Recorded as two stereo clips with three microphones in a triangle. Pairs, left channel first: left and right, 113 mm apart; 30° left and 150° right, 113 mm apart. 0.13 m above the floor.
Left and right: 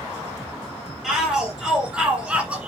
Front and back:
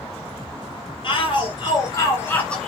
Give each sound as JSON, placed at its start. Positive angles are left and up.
{"t": 1.0, "sound": "a shout", "azimuth_deg": -5, "distance_m": 3.0}